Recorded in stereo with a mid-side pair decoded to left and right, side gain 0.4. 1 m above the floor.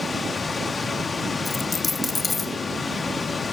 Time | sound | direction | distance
0.0 | a machine running | 25° left | 1.5 m
1.4 | a dropped coin | 20° left | 2.0 m